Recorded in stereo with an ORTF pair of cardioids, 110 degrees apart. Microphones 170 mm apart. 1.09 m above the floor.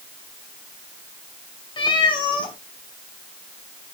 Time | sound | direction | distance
1.8 | a cat meowing | 30° left | 1.6 m